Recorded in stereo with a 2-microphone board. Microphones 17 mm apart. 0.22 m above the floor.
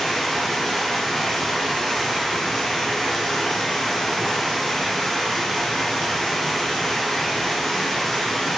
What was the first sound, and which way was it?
Running water, 50° left (ahead or behind).